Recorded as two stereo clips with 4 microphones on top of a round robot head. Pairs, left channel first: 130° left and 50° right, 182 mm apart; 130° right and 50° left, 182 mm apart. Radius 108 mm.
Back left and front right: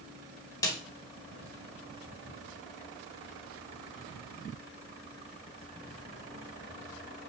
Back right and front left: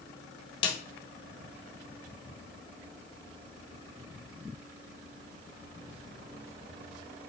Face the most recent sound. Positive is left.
turn(degrees=-170)